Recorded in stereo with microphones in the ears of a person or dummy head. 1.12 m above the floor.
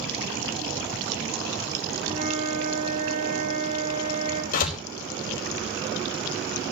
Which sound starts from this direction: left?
A door slam, at 4.5 s.